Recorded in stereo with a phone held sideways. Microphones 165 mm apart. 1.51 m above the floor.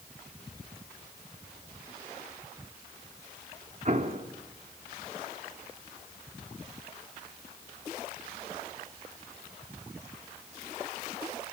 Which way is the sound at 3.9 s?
50° right (ahead or behind).